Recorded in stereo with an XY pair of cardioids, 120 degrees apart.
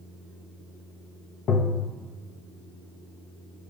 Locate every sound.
1.5 s tapping: 55° left, 0.7 m